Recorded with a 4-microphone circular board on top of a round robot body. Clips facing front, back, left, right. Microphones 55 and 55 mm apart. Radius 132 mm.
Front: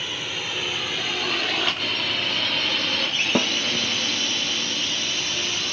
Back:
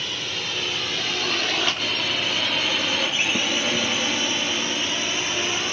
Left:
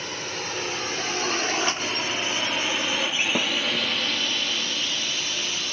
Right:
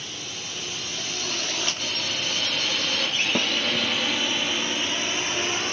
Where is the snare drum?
5° left.